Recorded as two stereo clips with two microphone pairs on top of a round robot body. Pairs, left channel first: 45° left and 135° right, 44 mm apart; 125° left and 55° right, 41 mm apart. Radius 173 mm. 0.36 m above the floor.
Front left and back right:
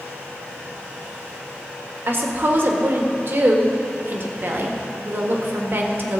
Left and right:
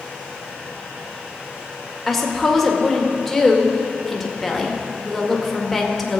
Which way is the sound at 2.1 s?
145° right.